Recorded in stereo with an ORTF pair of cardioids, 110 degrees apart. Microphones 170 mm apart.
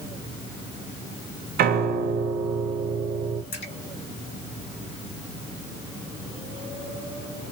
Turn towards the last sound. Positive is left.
turn(degrees=45)